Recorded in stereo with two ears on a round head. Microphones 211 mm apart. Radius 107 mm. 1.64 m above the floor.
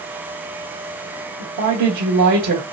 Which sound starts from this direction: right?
A woman speaking, at 1.4 s.